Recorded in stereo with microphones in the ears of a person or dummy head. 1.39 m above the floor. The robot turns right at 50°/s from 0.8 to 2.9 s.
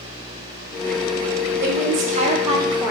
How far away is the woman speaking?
About 0.6 m.